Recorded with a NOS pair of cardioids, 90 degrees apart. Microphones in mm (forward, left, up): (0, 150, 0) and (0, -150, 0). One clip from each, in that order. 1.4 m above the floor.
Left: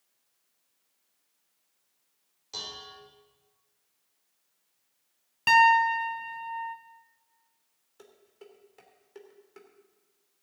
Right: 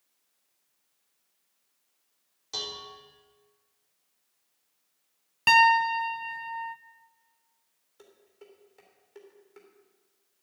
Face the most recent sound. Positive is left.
turn(degrees=15)